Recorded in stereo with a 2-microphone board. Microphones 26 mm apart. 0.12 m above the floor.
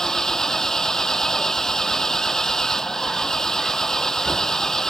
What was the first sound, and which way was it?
An engine running, 20° left (ahead or behind).